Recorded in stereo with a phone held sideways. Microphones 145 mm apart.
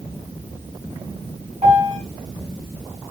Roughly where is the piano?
Right.